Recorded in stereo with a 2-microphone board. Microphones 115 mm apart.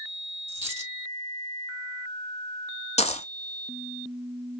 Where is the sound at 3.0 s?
70° left (ahead or behind), 0.7 m.